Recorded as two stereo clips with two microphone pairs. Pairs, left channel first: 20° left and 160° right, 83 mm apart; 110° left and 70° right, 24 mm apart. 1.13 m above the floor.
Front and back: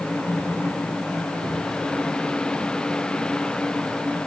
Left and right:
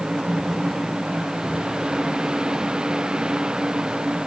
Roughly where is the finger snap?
I don't hear a finger snap.